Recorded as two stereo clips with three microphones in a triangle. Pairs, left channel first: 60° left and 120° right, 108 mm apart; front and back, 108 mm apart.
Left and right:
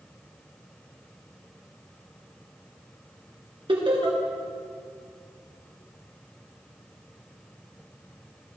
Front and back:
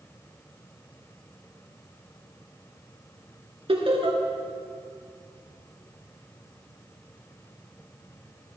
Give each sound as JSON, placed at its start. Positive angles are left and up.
{"t": 3.7, "sound": "laughter", "azimuth_deg": -150, "distance_m": 3.0}